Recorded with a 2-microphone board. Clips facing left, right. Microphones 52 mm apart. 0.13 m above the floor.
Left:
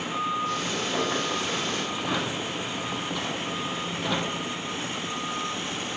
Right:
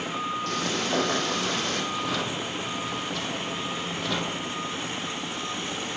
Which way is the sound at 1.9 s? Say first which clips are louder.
Even; 15° left (ahead or behind).